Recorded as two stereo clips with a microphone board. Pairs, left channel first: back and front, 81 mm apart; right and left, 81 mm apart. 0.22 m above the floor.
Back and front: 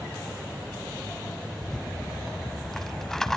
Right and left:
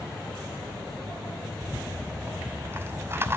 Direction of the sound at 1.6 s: 105° left.